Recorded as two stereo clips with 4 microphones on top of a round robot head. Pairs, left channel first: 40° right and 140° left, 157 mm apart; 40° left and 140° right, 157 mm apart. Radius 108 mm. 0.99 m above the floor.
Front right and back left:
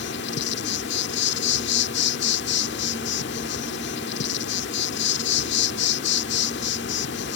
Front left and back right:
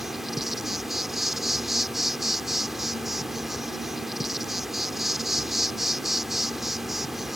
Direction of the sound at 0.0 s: 50° right.